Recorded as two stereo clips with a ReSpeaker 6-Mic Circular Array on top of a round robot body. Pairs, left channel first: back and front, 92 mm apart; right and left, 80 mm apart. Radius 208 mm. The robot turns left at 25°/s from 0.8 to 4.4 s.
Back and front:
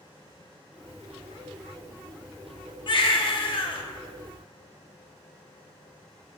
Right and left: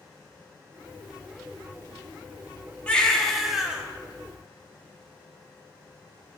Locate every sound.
2.9 s a baby crying: 165° right, 1.1 m; by 3.8 s 170° left, 1.1 m